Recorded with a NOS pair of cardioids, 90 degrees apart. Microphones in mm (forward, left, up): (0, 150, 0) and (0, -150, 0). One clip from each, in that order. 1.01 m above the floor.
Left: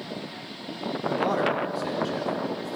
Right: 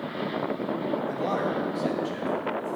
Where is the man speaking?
25° left, 1.8 m.